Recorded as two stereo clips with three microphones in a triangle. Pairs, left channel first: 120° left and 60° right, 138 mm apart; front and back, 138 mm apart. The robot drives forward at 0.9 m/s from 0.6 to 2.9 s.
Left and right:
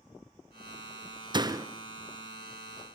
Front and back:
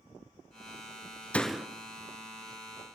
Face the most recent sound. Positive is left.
turn(degrees=-160)